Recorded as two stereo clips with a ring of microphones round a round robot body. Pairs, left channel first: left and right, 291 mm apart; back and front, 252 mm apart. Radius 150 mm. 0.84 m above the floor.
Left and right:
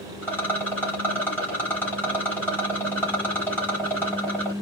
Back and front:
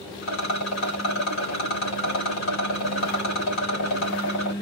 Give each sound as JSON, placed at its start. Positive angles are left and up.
{"t": 0.2, "sound": "a rattle", "azimuth_deg": 175, "distance_m": 3.0}